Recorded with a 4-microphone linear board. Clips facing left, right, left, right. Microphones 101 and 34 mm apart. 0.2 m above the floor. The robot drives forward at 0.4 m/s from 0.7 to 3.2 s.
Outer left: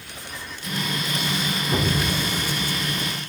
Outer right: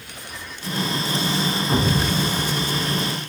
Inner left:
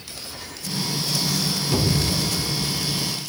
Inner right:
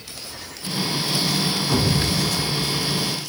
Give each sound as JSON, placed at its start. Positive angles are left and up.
{"t": 1.7, "sound": "an explosion", "side_deg": -35, "distance_m": 0.8}